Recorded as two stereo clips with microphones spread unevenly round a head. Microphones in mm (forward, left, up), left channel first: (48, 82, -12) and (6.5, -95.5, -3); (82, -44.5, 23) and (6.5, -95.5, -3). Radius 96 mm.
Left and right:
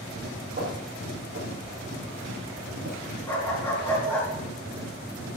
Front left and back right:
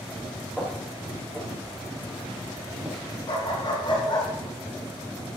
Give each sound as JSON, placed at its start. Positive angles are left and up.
{"t": 0.6, "sound": "footsteps", "azimuth_deg": -55, "distance_m": 6.5}
{"t": 3.3, "sound": "a dog barking", "azimuth_deg": 0, "distance_m": 5.0}